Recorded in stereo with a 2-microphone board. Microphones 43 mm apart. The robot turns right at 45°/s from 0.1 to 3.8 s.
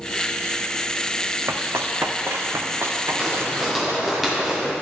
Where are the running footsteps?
75° right (ahead or behind), 0.7 m; by 4.2 s 80° right, 2.0 m.